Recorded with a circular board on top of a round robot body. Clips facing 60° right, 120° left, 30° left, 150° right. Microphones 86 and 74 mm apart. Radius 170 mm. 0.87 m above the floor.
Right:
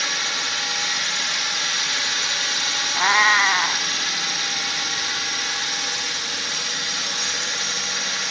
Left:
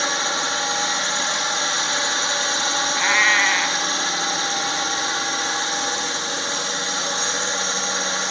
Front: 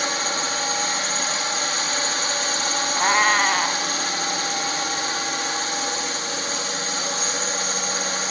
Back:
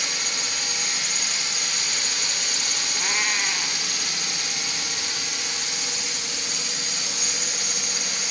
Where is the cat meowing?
5° left.